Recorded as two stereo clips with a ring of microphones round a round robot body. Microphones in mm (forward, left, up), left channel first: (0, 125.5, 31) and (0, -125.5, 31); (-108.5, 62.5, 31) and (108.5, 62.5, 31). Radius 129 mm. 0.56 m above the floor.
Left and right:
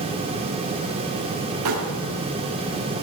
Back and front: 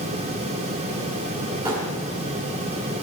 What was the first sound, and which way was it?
Crumpling, 75° right.